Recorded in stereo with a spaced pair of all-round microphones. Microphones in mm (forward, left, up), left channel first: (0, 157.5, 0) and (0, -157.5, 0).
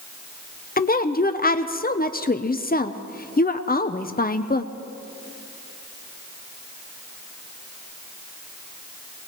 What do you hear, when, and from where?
0.8 s a woman speaking: 30° left (ahead or behind), 0.6 m